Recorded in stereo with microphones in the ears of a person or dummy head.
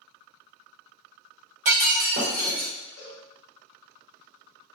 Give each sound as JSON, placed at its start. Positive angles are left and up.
{"t": 1.6, "sound": "breaking glass", "side_deg": -45, "distance_m": 0.8}
{"t": 3.0, "sound": "a cowbell", "side_deg": 45, "distance_m": 1.1}